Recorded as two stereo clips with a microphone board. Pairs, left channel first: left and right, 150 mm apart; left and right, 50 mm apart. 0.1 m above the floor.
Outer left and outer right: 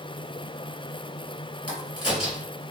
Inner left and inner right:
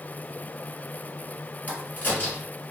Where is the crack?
30° left (ahead or behind), 1.9 m.